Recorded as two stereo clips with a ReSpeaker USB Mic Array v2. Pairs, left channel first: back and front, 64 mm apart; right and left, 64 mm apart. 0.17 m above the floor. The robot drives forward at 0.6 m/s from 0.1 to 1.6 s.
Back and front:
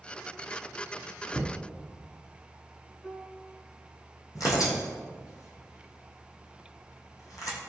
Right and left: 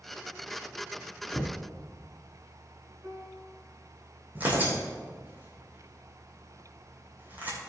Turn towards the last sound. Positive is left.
turn(degrees=150)